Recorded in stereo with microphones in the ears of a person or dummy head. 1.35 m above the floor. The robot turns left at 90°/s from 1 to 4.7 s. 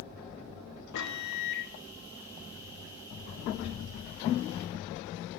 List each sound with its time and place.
0.9 s a microwave: 115° left, 3 m; by 1.7 s 50° left, 3 m